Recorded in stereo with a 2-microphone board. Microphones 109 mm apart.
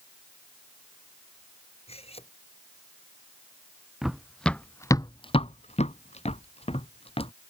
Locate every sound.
1.9 s cutlery clinking: 65° left (ahead or behind)
4.0 s running footsteps: 5° right (ahead or behind); by 7.3 s 60° left (ahead or behind)